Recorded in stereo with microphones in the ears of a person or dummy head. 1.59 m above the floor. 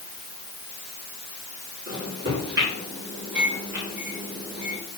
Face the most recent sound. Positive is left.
turn(degrees=-60)  # may be behind; listen again after turning